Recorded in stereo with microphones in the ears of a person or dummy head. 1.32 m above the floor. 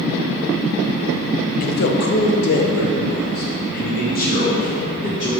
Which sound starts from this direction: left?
A man speaking, at 1.6 s.